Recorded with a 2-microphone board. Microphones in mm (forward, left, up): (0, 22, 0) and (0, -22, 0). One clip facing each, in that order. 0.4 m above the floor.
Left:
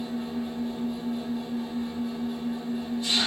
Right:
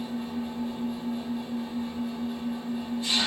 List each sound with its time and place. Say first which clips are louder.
0.0 s an engine running: left 1 dB; 5° right (ahead or behind), 1.4 m